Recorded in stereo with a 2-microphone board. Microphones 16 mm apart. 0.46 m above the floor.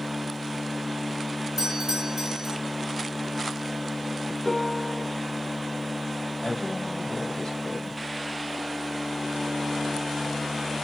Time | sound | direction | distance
1.6 | a doorbell | 55° right (ahead or behind) | 2.5 m
4.5 | a piano | 25° left (ahead or behind) | 2 m
6.4 | a woman speaking | 35° left (ahead or behind) | 2.5 m